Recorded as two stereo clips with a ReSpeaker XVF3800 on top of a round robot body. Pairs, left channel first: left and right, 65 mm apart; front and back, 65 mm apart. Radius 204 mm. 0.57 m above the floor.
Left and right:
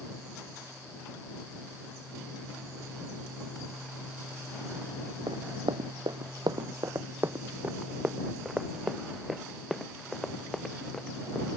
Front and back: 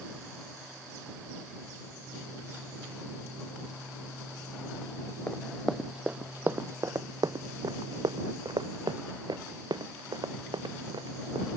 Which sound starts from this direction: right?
Running footsteps, at 5.3 s.